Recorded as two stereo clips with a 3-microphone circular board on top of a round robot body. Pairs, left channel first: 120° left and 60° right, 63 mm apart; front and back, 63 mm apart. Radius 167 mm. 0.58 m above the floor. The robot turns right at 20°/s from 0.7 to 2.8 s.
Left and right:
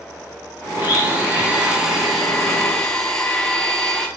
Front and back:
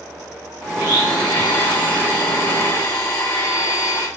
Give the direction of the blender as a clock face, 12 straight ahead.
12 o'clock.